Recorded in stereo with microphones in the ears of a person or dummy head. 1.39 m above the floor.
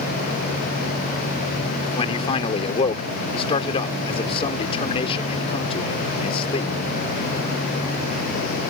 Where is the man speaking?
30° left (ahead or behind).